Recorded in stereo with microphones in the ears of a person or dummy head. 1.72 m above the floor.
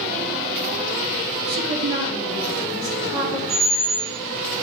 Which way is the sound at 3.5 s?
65° right (ahead or behind).